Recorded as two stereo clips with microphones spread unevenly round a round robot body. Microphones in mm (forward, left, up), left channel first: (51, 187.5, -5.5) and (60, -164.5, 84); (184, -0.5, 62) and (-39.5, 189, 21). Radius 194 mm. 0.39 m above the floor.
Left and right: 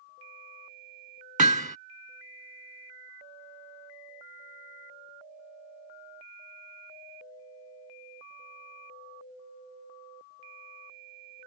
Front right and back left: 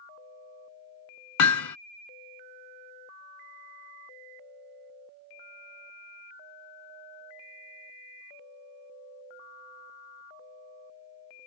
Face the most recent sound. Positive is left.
turn(degrees=-15)